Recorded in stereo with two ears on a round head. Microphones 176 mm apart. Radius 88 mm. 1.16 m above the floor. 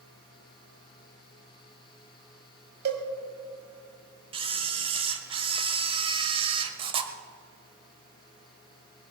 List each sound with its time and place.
2.9 s a cowbell: 55° right (ahead or behind), 1.7 m
4.3 s a camera shutter: 30° right (ahead or behind), 1.0 m